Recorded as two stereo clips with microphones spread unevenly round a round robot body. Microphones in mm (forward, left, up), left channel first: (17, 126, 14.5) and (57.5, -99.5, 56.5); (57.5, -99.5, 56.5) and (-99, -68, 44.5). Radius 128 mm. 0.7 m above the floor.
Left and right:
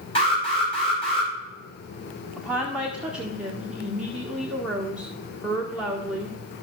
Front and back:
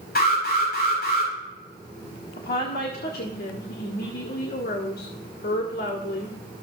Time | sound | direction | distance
0.1 | an alarm | 35° left | 5 m
2.4 | a woman speaking | 10° left | 1.7 m